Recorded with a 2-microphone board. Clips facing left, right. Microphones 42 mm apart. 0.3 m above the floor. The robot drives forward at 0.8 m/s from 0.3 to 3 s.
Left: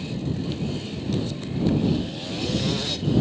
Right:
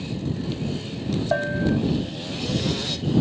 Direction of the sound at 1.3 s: 90° right.